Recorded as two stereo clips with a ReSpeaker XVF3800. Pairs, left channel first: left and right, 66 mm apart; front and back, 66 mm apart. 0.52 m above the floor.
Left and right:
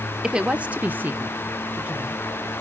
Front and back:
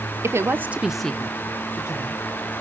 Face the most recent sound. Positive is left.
turn(degrees=-20)